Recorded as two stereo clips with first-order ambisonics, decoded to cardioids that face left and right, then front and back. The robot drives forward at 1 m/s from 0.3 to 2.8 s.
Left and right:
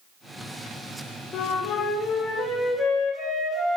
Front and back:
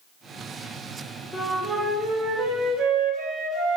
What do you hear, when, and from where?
1.3 s a flute: 65° left, 0.8 m; by 3.8 s 160° left, 1.5 m